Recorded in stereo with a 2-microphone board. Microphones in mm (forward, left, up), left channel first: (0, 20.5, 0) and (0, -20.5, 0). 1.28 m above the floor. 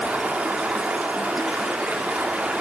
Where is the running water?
45° right (ahead or behind), 2.5 m.